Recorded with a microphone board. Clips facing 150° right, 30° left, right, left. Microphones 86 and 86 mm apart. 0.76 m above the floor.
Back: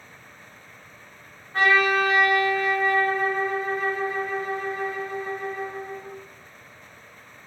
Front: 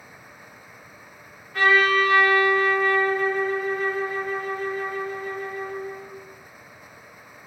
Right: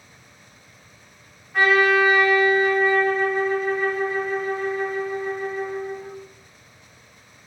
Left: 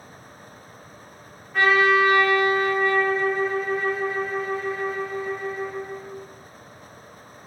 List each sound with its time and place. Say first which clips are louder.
1.5 s a trumpet: front 1 dB, right 1 dB; 175° right, 0.8 m